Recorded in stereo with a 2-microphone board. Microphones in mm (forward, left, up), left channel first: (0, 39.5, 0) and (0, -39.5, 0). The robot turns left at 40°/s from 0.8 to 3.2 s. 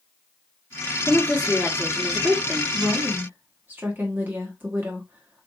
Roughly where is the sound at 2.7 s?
Right.